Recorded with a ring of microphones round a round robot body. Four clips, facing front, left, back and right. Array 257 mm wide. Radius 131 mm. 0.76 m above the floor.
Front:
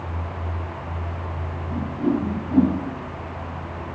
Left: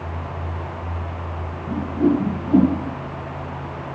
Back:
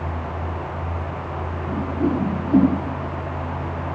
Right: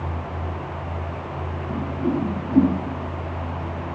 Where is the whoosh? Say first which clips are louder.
Left 6 dB, back 1 dB; 130° left, 4.5 m.